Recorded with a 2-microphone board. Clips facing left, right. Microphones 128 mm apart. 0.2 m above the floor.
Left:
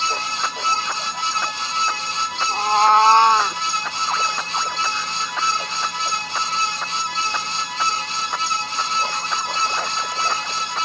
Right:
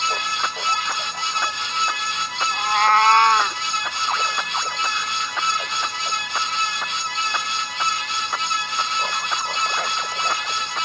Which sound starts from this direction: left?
A cat meowing, at 2.5 s.